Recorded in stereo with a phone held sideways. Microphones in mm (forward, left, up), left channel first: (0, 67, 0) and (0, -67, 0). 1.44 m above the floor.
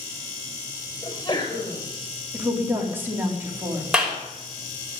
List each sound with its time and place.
1.0 s a sneeze: 35° left (ahead or behind), 6.5 m
2.3 s a woman speaking: 15° right (ahead or behind), 4 m
3.9 s a clap: 5° right (ahead or behind), 5 m